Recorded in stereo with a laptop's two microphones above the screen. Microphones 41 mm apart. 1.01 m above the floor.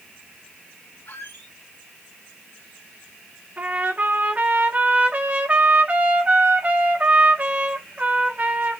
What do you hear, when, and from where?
1.1 s a squeak: 65° left (ahead or behind), 1.9 m
3.6 s a trumpet: 40° right (ahead or behind), 0.9 m